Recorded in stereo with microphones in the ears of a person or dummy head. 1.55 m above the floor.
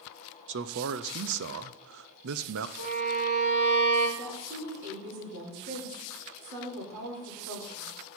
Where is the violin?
65° right (ahead or behind), 4.5 m.